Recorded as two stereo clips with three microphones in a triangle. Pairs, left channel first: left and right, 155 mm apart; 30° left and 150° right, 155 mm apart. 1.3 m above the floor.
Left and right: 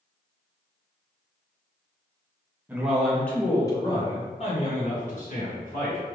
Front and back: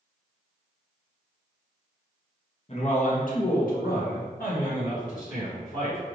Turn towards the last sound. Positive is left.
turn(degrees=65)